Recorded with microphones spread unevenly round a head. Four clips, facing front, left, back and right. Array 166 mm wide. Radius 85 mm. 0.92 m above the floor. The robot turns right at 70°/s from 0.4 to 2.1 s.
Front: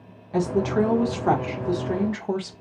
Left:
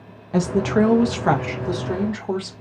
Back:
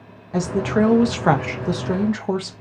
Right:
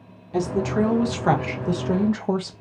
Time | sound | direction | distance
0.3 | a woman speaking | 115° left | 0.7 m